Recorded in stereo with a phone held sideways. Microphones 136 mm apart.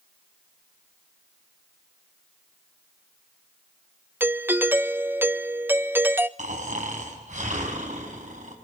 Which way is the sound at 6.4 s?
85° right.